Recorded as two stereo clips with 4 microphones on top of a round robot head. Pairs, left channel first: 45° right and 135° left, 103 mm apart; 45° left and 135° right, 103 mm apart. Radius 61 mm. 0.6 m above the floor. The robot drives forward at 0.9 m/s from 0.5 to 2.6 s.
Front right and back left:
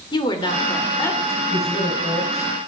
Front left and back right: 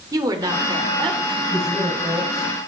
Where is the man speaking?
40° right, 4.5 m; by 2.7 s 55° right, 3.5 m.